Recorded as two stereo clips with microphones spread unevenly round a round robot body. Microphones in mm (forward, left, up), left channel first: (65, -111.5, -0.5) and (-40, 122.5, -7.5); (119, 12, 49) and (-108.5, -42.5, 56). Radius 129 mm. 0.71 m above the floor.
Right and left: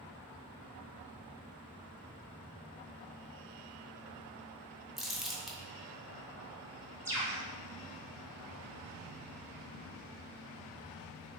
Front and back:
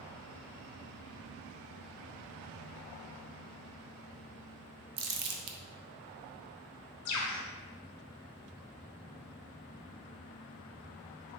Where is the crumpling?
155° right, 0.5 m.